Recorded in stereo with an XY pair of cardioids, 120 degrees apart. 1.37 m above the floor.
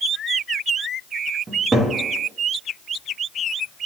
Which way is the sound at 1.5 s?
25° right.